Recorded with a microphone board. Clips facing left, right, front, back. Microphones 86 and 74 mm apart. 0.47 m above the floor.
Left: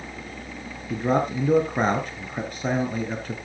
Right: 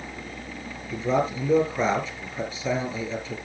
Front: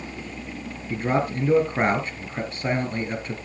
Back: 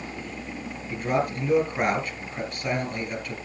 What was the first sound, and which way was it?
A man speaking, 60° left.